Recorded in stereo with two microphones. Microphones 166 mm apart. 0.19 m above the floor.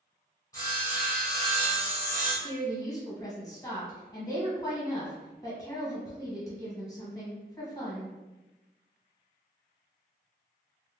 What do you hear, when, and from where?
0.5 s sawing: 20° left (ahead or behind), 1.4 m
2.4 s a woman speaking: 20° left (ahead or behind), 1.3 m